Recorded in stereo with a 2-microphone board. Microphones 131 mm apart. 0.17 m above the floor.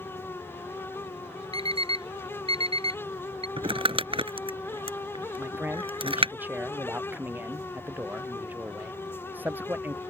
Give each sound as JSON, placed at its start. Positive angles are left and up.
{"t": 1.5, "sound": "an alarm clock", "side_deg": -50}
{"t": 3.6, "sound": "crumpling", "side_deg": -45}
{"t": 5.4, "sound": "a man speaking", "side_deg": -15}